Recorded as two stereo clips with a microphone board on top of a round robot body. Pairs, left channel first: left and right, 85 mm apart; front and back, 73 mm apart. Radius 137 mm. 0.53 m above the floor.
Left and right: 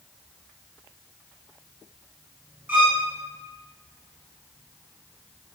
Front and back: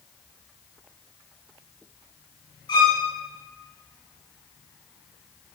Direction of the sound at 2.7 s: 20° right.